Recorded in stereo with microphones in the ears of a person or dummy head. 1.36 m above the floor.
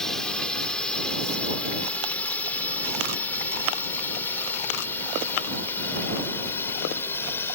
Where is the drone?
10° left (ahead or behind); by 7.5 s 20° left (ahead or behind).